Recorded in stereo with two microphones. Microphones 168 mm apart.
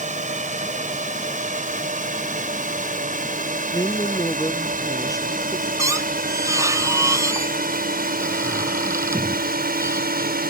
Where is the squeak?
20° right (ahead or behind).